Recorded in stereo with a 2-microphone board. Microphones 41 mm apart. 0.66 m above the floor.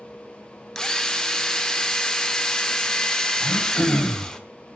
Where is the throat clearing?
75° left (ahead or behind), 4 m.